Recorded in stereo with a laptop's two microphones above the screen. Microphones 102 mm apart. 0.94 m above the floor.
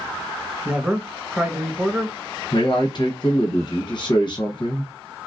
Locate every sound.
0.7 s a man speaking: 10° right (ahead or behind), 1.0 m
2.5 s a man speaking: 45° left (ahead or behind), 0.8 m